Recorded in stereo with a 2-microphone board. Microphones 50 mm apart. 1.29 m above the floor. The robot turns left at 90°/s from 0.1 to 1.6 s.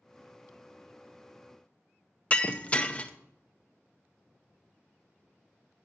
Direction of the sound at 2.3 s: 25° left (ahead or behind).